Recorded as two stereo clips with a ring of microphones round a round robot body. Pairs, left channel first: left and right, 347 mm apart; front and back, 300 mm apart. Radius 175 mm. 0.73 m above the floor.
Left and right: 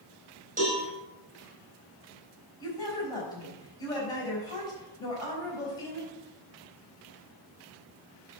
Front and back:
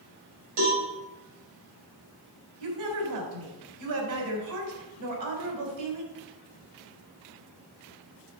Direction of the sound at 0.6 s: 160° right.